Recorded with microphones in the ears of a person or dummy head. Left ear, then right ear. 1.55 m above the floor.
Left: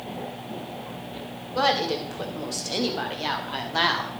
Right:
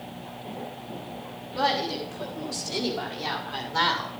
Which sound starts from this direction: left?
A woman speaking, at 1.5 s.